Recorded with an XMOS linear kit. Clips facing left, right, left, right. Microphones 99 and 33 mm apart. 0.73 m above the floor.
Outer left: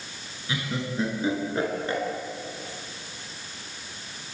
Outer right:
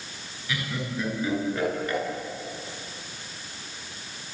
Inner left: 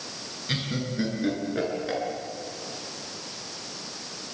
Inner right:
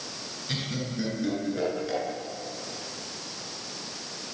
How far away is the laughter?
About 9.5 m.